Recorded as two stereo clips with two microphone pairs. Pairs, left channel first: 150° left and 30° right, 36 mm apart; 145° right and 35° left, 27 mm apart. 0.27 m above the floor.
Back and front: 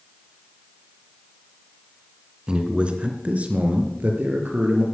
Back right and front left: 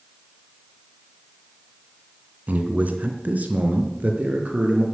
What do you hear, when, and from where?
2.5 s a man speaking: 35° left, 2.5 m; by 4.8 s straight ahead, 4.5 m